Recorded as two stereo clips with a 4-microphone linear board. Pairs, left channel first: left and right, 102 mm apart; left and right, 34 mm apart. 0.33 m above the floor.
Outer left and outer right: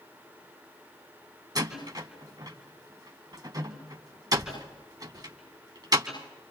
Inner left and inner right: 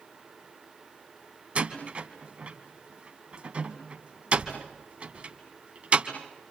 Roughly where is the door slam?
Right.